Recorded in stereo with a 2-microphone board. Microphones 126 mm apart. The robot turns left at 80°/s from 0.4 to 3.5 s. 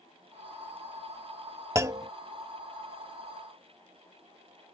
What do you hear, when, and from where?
1.8 s a clunk: 25° right (ahead or behind); by 2.1 s 30° right (ahead or behind)